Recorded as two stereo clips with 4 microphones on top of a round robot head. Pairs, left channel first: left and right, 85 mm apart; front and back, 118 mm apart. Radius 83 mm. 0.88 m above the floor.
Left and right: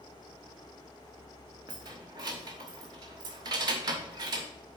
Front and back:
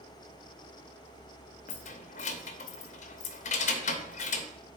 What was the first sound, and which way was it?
Keys jangling, 40° right.